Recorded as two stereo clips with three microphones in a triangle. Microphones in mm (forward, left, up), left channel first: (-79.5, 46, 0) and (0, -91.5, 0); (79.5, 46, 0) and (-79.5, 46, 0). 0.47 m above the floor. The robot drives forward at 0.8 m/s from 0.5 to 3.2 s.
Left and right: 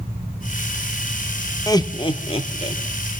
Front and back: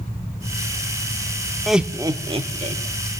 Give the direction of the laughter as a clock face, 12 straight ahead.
9 o'clock.